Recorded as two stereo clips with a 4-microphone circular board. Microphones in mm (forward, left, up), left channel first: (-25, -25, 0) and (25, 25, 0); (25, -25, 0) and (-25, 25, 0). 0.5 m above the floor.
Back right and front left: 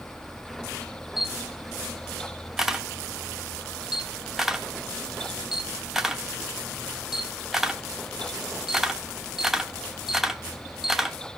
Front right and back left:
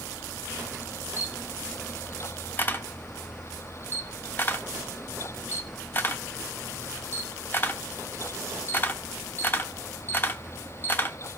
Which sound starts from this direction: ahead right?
A camera shutter, at 1.2 s.